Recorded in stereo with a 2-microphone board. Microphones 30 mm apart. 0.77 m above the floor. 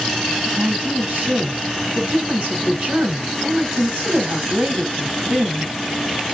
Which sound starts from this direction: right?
A woman speaking, at 0.5 s.